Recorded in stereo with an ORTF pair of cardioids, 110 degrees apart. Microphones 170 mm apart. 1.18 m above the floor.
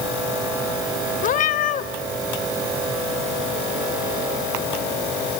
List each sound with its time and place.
1.2 s a cat meowing: 50° left, 1.5 m